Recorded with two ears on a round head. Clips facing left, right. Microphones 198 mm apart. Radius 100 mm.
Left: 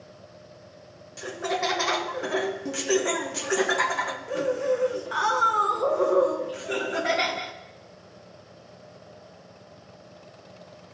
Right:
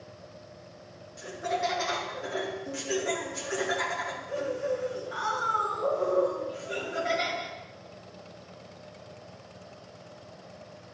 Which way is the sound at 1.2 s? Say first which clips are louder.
Left 3 dB; 70° left (ahead or behind).